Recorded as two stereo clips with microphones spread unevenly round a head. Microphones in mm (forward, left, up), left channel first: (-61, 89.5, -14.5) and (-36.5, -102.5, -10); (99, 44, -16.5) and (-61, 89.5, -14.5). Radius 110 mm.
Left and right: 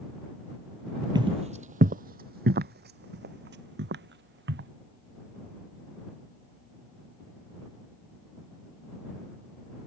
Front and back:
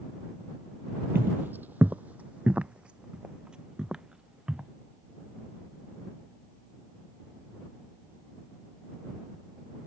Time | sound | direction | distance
1.1 | footsteps | 130° right | ?